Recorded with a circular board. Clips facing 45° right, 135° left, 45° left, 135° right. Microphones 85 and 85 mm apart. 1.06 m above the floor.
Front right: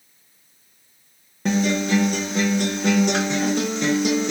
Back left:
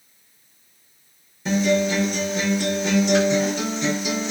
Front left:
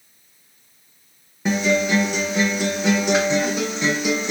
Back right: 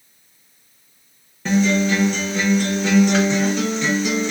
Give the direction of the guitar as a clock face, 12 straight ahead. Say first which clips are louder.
Back left 1 dB, back right 2 dB; 1 o'clock.